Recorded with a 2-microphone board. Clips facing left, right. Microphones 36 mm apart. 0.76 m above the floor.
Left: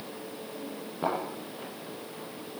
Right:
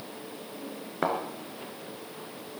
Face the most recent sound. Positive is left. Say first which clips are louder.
# right 2 dB
turn(degrees=-75)  # may be behind; listen again after turning